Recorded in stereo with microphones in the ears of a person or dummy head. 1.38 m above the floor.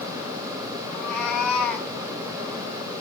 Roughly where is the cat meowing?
Centre.